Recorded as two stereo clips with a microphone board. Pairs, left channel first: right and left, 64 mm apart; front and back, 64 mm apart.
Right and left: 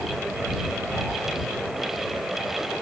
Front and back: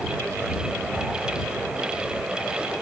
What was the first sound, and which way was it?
Only background noise.